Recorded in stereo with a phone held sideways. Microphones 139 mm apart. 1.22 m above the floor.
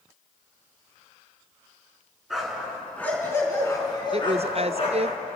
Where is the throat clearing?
I don't hear throat clearing.